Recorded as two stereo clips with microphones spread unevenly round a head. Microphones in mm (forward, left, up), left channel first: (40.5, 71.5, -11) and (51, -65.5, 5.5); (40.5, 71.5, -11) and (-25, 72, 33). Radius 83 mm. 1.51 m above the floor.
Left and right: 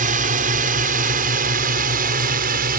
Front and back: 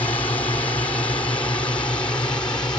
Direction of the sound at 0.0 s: 65° right.